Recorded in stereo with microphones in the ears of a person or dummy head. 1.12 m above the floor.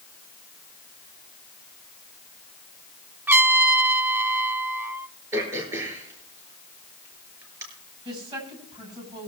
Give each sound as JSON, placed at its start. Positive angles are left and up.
{"t": 3.3, "sound": "a trumpet", "side_deg": -15, "distance_m": 0.6}
{"t": 5.3, "sound": "throat clearing", "side_deg": -20, "distance_m": 5.0}
{"t": 8.1, "sound": "a woman speaking", "side_deg": -30, "distance_m": 7.0}